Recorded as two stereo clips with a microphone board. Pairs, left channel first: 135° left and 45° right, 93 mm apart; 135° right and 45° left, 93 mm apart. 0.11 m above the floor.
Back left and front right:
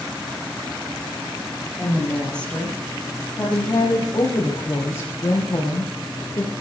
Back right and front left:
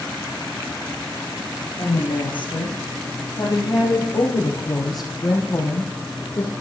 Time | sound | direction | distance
1.8 | a woman speaking | 140° right | 3.5 m